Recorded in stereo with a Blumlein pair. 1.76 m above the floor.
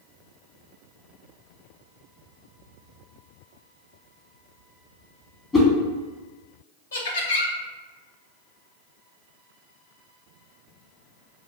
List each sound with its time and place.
5.5 s a whoosh: 20° left, 1.4 m
6.9 s laughter: 65° left, 1.3 m